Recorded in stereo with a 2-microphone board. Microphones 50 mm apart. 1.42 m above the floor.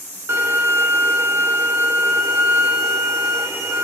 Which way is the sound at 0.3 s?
60° right (ahead or behind).